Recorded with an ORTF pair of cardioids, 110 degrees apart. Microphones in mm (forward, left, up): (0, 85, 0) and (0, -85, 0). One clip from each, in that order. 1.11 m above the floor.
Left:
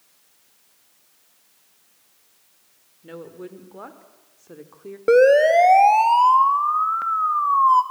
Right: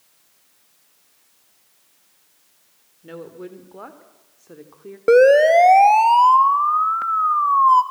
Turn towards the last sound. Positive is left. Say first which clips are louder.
# right 2 dB
turn(degrees=-10)